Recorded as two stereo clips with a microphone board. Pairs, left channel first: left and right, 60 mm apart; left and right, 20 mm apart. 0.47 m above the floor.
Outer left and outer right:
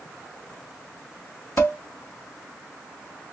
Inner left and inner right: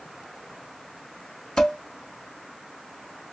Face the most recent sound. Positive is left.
turn(degrees=40)  # may be behind; listen again after turning